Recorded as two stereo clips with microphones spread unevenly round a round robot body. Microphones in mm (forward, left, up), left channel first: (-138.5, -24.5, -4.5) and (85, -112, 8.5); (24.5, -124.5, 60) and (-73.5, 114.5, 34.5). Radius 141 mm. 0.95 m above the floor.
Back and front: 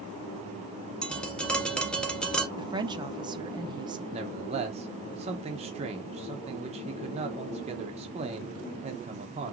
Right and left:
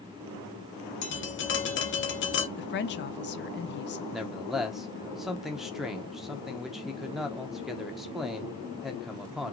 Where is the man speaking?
35° left, 0.7 m.